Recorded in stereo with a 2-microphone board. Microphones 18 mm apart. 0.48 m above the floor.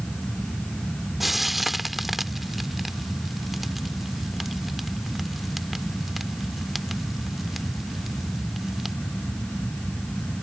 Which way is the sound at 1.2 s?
5° right (ahead or behind).